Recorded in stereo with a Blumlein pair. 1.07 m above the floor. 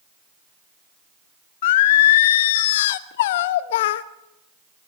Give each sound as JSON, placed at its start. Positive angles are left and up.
{"t": 1.6, "sound": "singing", "azimuth_deg": 55, "distance_m": 1.0}